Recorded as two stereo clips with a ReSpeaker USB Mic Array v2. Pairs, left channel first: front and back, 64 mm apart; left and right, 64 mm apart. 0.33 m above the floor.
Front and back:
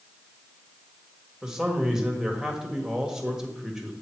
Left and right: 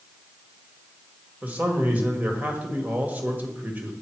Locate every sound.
1.4 s a man speaking: 115° right, 1.5 m